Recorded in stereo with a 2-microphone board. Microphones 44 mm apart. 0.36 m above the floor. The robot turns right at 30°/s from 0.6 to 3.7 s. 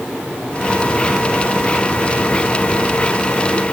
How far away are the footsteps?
No footsteps in this recording.